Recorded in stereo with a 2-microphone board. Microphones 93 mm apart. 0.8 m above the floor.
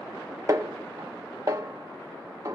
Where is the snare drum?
35° right (ahead or behind), 1.1 m.